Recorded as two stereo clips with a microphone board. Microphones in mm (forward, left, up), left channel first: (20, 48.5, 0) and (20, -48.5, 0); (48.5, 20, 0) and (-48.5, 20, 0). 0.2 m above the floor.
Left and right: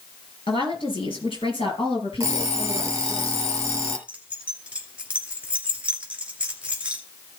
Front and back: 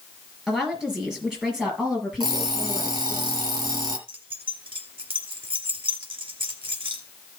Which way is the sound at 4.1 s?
165° right.